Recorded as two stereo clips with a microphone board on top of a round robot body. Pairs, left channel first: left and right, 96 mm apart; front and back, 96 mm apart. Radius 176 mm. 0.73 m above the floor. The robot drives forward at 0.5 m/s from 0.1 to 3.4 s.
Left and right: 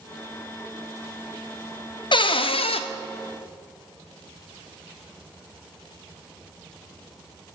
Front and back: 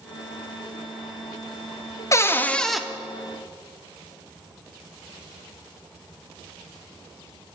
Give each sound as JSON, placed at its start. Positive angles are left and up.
{"t": 2.1, "sound": "a cupboard door", "azimuth_deg": 60, "distance_m": 0.6}